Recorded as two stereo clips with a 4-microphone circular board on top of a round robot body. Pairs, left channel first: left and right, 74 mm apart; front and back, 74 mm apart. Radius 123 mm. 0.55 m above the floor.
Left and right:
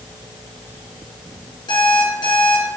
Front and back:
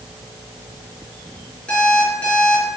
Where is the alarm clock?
75° left, 5 m.